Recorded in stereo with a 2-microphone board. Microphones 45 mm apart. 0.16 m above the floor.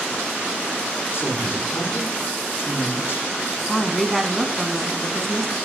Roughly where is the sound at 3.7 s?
Centre.